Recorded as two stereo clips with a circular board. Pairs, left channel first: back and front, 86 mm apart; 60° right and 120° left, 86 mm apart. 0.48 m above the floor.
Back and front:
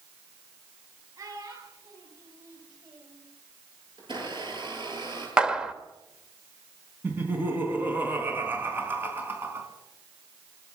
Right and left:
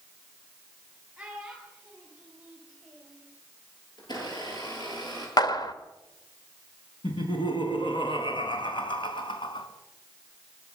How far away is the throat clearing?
No throat clearing in this recording.